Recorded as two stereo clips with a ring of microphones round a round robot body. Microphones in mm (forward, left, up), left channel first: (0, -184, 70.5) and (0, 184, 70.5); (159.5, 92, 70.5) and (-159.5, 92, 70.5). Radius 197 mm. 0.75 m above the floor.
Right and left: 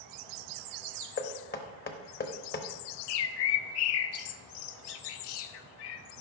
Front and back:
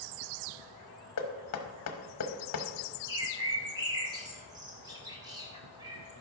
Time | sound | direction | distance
1.2 | knocking | 30° right | 1.0 m
3.1 | a bird | 100° right | 0.7 m